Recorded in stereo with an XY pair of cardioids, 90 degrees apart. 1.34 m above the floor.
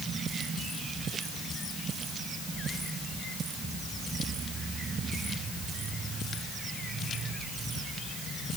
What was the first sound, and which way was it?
Only background noise.